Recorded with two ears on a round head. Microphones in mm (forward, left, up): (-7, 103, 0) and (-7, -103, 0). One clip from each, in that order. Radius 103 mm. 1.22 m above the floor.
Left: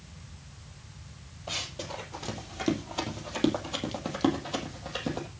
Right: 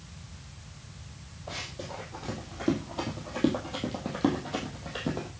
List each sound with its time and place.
1.5 s running footsteps: 65° left (ahead or behind), 2.5 m; by 5.3 s 25° left (ahead or behind), 3 m